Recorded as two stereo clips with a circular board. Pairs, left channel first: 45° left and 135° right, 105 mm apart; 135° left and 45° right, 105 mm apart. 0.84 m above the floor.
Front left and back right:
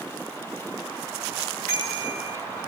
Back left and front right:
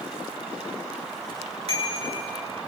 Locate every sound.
1.7 s a bicycle bell: 25° right, 8.5 m